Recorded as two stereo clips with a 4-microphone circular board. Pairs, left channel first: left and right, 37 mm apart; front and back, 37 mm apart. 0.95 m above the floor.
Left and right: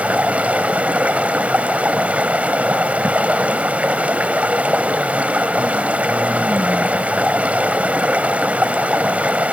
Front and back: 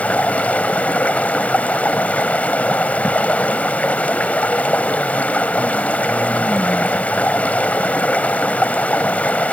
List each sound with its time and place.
0.0 s running water: 40° right, 1.5 m